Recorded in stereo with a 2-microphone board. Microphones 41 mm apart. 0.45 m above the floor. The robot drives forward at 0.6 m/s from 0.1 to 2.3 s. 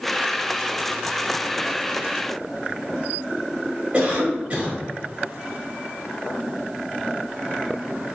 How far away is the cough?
About 1.8 m.